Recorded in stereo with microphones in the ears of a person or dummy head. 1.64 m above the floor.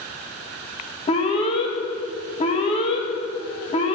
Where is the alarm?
35° left (ahead or behind), 1.3 m.